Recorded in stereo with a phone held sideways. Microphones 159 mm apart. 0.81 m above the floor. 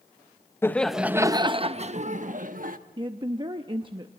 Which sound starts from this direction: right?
A woman speaking, at 3.0 s.